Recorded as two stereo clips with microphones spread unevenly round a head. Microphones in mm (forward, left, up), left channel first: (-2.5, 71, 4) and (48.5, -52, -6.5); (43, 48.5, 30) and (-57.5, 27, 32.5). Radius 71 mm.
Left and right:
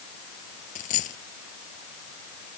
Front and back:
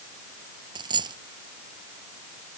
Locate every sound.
0.8 s a dropped coin: 150° left